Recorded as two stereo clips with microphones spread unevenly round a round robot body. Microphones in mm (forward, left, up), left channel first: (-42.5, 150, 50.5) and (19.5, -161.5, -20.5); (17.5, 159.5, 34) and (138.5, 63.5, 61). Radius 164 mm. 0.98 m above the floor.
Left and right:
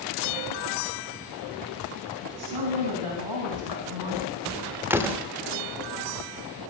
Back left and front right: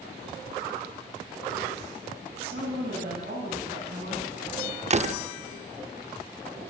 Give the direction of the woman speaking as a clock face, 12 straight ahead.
3 o'clock.